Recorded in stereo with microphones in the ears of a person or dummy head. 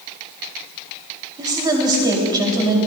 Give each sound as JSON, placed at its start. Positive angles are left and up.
{"t": 1.4, "sound": "a woman speaking", "side_deg": -25, "distance_m": 2.5}